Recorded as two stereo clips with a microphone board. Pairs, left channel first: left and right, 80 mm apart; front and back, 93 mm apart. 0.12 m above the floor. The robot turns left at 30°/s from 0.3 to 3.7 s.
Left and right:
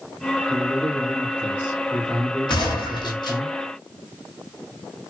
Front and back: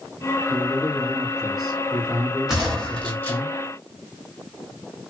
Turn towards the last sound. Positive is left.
turn(degrees=60)